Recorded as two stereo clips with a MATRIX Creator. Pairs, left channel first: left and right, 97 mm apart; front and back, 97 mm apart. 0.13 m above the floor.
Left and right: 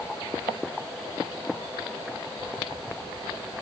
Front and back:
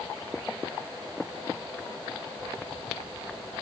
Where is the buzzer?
No buzzer in this recording.